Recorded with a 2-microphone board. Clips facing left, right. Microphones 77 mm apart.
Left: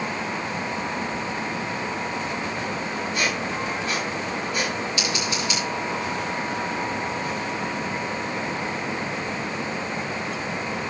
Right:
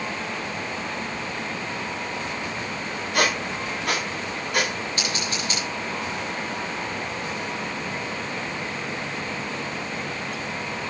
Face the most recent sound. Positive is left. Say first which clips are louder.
# left 2 dB
turn(degrees=-40)  # may be behind; listen again after turning